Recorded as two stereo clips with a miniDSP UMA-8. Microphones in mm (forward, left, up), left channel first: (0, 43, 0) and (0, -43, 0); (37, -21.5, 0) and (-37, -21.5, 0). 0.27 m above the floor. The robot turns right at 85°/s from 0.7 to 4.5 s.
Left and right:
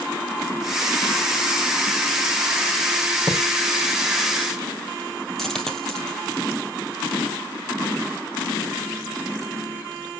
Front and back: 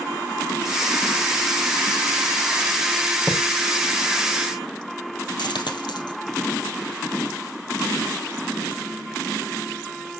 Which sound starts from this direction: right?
A thud, at 3.3 s.